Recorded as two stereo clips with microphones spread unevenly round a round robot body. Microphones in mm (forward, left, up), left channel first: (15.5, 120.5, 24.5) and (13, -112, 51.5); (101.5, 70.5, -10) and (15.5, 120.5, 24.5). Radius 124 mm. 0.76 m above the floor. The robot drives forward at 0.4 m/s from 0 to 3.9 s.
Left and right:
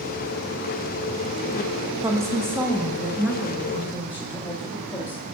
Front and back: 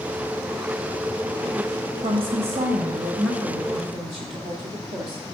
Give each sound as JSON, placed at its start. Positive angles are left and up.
{"t": 2.0, "sound": "a woman speaking", "azimuth_deg": -170, "distance_m": 0.8}